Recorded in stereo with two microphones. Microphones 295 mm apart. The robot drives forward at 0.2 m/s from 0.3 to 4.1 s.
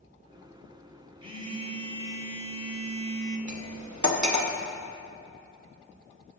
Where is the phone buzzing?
15° right (ahead or behind), 1.3 m; by 3.4 s 25° right (ahead or behind), 1.0 m.